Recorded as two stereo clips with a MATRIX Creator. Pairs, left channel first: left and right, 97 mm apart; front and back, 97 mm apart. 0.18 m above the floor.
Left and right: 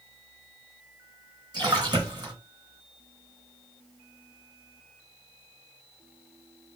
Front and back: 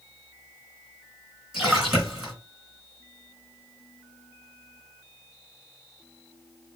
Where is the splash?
100° right, 2 m.